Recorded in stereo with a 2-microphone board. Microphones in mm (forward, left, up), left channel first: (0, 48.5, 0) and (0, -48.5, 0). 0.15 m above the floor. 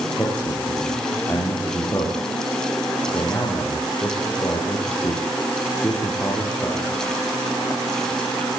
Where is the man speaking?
25° left (ahead or behind), 7 m.